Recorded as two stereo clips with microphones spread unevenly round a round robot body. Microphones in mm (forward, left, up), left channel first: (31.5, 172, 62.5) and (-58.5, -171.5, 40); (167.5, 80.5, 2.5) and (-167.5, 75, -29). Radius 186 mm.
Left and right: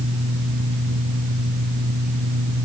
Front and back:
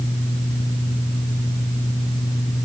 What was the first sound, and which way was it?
Only background noise.